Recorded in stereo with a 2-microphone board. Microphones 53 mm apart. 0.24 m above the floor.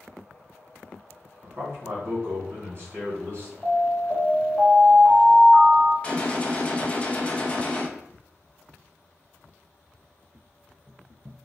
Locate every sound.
1.4 s a man speaking: 45° right (ahead or behind), 2.0 m
3.6 s an alarm: 5° left (ahead or behind), 1.7 m
6.0 s a gunshot: 20° left (ahead or behind), 0.6 m